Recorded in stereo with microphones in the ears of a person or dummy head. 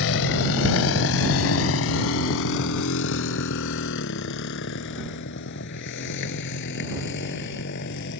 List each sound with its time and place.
0.0 s a motorcycle: 65° left (ahead or behind); by 8.2 s 60° left (ahead or behind)